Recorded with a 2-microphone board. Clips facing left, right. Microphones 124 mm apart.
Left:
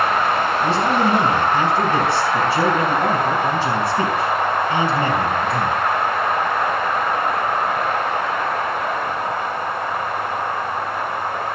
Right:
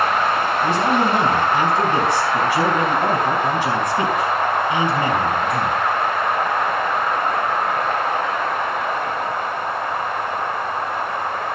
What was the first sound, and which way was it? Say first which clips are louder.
A man speaking: even; 15° right (ahead or behind).